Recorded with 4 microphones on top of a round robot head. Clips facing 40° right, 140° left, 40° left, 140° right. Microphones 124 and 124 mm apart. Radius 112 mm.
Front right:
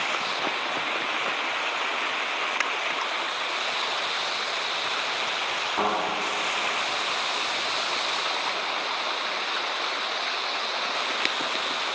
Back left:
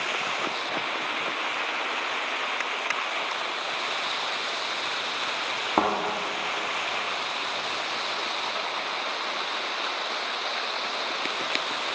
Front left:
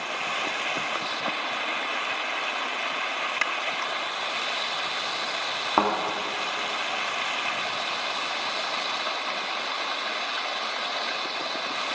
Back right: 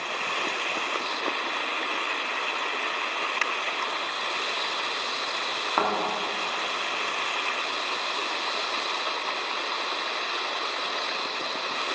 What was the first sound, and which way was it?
A thud, 110° left.